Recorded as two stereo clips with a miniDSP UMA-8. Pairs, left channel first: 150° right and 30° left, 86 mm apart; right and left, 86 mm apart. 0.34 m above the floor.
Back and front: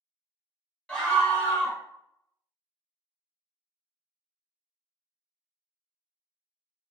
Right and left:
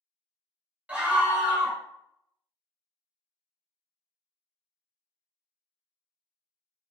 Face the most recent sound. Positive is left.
turn(degrees=145)